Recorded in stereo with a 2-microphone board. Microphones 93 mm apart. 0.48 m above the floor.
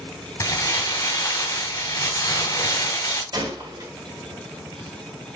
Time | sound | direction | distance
0.4 | crumpling | 40° left (ahead or behind) | 1.7 m
3.3 | a gunshot | 50° right (ahead or behind) | 1.7 m